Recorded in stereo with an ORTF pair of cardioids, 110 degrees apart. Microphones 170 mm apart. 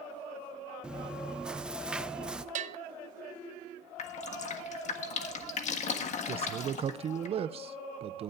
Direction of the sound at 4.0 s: 50° left.